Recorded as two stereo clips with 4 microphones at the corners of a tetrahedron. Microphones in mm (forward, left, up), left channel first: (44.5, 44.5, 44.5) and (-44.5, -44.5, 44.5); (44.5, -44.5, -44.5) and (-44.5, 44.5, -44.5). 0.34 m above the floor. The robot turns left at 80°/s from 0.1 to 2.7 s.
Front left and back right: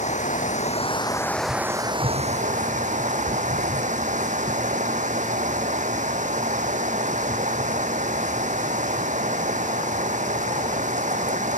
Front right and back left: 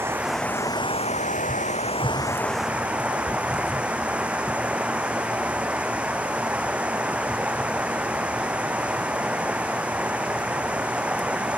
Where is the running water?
65° left; by 11.6 s 145° right.